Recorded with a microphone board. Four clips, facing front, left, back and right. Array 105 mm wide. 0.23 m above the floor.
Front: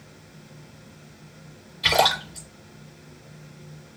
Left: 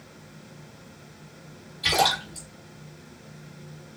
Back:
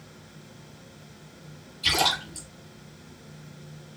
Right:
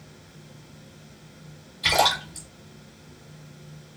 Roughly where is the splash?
Ahead.